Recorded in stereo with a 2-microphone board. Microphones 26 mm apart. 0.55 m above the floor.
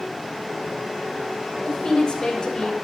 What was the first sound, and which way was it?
A woman speaking, 30° left (ahead or behind).